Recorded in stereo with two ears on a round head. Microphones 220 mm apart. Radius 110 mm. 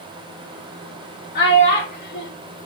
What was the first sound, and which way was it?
A child speaking, 40° left (ahead or behind).